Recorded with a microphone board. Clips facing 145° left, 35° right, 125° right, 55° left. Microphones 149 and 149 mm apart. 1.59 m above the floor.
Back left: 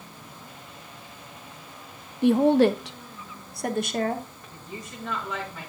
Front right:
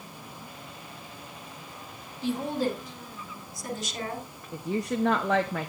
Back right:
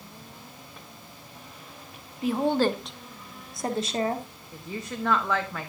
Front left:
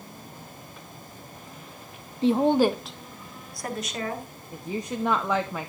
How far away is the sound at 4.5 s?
About 0.9 m.